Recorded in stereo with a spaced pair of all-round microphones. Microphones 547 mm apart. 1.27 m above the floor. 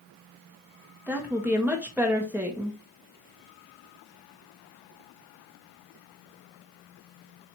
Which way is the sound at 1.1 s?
5° right (ahead or behind).